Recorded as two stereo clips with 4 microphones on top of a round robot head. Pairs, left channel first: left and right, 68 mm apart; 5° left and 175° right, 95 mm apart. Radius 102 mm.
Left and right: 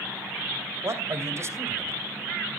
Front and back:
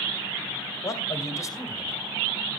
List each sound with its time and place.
0.8 s a man speaking: 50° right, 2 m